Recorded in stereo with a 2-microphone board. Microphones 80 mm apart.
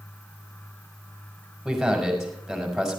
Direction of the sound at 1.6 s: 5° right (ahead or behind).